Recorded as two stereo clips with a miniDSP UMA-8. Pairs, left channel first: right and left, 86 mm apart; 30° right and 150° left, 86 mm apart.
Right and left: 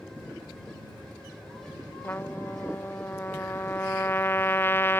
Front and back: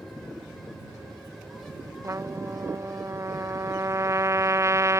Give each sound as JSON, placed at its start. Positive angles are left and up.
{"t": 2.0, "sound": "a trumpet", "azimuth_deg": -155}